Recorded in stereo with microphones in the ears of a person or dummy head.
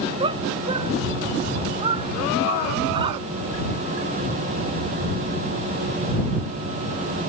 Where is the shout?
35° right (ahead or behind).